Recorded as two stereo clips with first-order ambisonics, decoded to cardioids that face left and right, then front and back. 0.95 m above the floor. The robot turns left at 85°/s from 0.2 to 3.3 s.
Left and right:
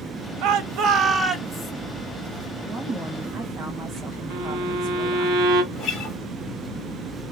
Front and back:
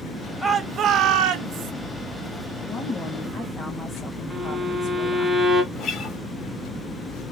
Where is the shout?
95° right, 0.7 m; by 1.7 s 150° left, 0.7 m.